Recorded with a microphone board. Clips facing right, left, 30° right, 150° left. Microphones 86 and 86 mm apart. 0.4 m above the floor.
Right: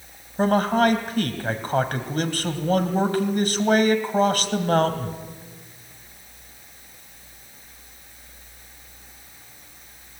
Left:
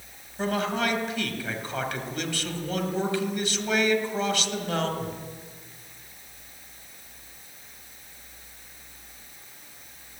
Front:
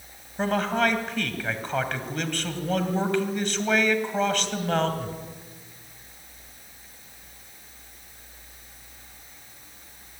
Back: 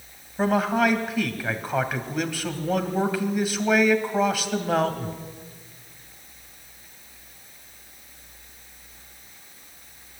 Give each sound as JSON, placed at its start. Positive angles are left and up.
{"t": 0.4, "sound": "a man speaking", "azimuth_deg": -125, "distance_m": 2.5}